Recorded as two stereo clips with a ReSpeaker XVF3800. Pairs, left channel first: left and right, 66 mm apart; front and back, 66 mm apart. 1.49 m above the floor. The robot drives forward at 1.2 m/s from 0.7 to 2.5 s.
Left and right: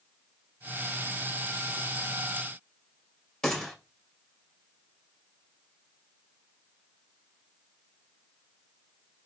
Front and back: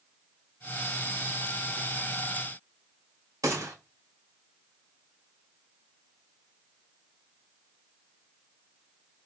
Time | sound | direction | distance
3.4 | a gunshot | 170° left | 1.8 m